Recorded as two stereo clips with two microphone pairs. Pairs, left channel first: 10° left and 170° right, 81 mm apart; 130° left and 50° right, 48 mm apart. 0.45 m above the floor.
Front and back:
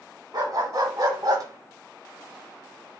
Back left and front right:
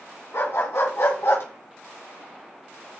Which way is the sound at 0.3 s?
150° left.